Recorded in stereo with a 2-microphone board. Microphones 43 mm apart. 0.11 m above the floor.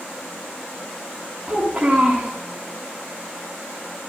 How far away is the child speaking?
About 6 m.